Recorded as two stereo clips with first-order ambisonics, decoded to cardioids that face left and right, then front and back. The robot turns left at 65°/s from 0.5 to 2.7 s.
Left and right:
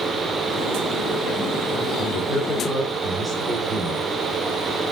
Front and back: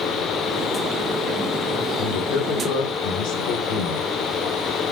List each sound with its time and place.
2.0 s a man speaking: 50° left, 1.6 m; by 4.1 s 5° left, 1.6 m